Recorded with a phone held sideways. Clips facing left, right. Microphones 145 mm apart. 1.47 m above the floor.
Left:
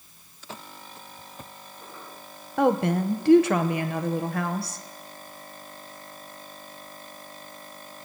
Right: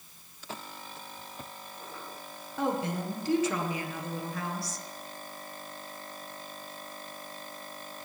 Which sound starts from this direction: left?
A woman speaking, at 2.6 s.